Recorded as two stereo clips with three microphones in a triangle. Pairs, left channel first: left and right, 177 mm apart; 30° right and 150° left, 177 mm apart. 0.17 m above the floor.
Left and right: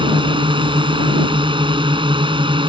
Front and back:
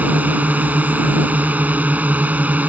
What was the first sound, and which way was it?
A drone, 135° right.